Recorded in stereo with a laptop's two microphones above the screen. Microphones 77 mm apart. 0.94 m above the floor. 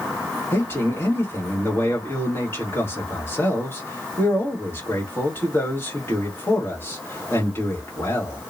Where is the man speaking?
30° left (ahead or behind), 1.6 m.